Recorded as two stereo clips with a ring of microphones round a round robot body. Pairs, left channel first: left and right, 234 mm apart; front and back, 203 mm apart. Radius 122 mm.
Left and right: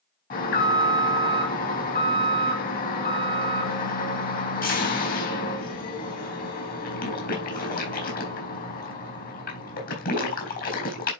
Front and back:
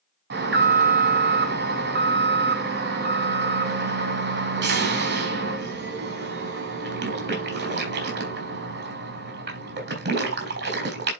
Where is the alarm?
145° left, 4 m.